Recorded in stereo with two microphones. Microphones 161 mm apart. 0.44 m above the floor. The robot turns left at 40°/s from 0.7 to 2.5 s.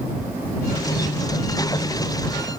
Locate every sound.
Only background noise.